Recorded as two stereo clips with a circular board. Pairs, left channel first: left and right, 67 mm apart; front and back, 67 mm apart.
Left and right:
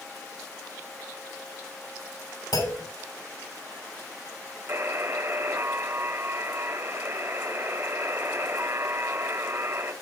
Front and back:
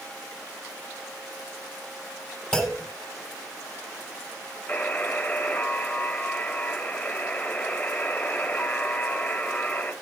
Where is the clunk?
80° left, 3 m.